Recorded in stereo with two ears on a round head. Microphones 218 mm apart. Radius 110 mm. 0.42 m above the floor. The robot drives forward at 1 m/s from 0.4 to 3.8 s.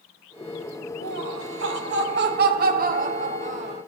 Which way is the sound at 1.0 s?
60° right (ahead or behind).